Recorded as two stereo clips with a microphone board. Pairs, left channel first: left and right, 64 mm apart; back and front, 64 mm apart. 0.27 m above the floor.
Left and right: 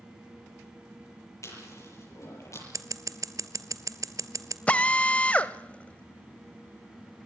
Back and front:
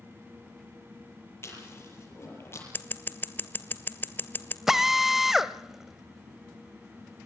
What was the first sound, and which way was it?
Chewing, 130° left.